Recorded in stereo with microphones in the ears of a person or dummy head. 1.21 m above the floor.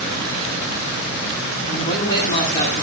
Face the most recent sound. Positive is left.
turn(degrees=40)  # may be behind; listen again after turning